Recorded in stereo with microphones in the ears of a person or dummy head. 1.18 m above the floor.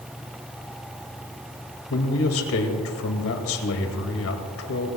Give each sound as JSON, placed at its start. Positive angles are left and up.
{"t": 1.9, "sound": "a man speaking", "side_deg": 65, "distance_m": 2.0}